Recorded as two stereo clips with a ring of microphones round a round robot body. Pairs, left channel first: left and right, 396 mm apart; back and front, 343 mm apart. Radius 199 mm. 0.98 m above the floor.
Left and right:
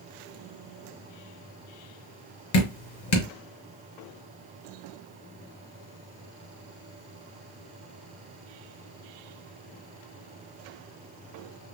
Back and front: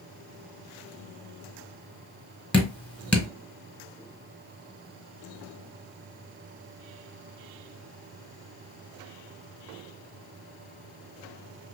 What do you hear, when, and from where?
2.5 s dripping: 95° left, 1.4 m